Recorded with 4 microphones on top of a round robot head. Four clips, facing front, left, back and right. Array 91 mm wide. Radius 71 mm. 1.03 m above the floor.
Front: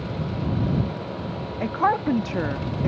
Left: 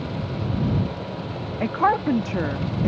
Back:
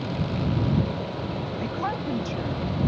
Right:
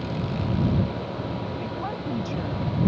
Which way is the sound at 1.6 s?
60° left.